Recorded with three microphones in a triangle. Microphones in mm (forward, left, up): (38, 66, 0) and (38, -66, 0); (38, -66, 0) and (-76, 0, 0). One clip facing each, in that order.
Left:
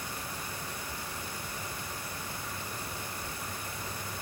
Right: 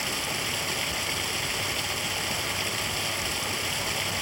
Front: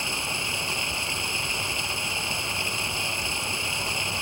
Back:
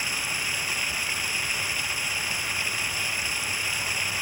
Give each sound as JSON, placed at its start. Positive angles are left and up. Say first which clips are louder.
{"t": 0.0, "sound": "running water", "louder": "right 7 dB, front 3 dB", "azimuth_deg": -95}